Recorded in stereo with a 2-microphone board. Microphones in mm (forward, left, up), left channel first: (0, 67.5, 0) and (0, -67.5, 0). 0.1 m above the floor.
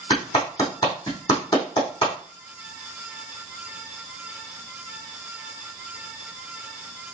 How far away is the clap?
About 3 m.